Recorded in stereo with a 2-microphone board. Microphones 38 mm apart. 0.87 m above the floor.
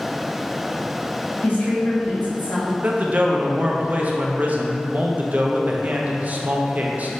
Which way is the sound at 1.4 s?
60° left (ahead or behind).